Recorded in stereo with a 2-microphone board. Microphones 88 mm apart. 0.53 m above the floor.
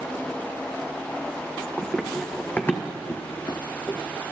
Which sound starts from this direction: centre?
Running footsteps, at 1.8 s.